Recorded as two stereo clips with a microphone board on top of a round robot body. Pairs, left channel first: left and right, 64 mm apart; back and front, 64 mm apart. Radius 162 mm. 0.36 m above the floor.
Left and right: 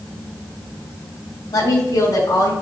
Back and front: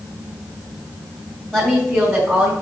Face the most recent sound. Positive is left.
turn(degrees=85)